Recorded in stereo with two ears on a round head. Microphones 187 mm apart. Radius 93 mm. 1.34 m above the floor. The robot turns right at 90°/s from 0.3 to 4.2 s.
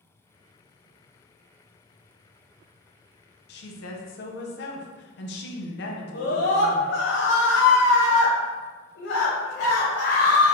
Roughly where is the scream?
Left.